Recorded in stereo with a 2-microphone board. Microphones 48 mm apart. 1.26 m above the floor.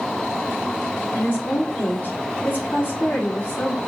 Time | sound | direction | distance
1.1 | a woman speaking | 40° left (ahead or behind) | 4 m